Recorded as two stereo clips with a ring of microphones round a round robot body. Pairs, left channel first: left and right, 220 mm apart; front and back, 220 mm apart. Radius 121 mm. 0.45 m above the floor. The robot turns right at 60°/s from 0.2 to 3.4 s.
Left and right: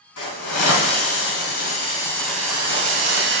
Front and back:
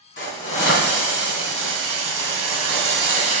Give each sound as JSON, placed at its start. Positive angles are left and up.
{"t": 0.2, "sound": "a hiss", "azimuth_deg": 55, "distance_m": 3.0}